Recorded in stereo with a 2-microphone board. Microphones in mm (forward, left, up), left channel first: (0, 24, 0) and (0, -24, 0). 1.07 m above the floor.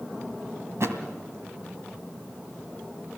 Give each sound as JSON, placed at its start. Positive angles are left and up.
{"t": 0.8, "sound": "a thud", "side_deg": -70, "distance_m": 2.0}